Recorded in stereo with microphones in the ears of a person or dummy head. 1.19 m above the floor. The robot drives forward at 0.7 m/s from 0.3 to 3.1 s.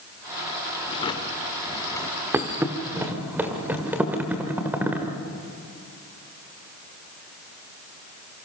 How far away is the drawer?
About 1.4 m.